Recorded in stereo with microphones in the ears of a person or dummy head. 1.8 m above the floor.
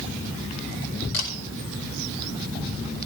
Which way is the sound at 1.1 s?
60° left (ahead or behind).